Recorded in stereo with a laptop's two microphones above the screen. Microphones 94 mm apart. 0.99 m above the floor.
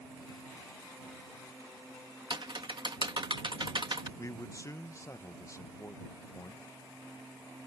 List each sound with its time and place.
2.3 s typing on a keyboard: 65° right (ahead or behind)
4.2 s a man speaking: 35° left (ahead or behind)